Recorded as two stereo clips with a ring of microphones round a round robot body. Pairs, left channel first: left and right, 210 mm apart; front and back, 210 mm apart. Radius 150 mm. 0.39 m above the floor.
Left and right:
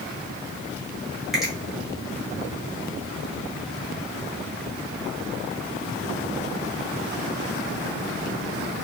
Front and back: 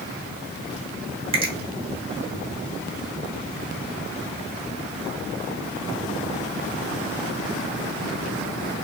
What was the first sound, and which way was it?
A finger snap, straight behind.